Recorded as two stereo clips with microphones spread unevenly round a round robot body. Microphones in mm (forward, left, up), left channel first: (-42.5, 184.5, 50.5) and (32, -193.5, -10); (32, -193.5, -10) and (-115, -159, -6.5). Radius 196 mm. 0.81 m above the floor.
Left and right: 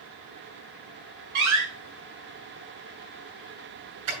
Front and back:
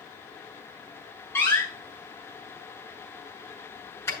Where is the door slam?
90° right, 7.5 m.